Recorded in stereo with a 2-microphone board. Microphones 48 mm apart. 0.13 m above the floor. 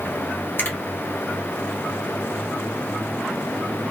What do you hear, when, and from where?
0.6 s a finger snap: 50° left (ahead or behind), 1.9 m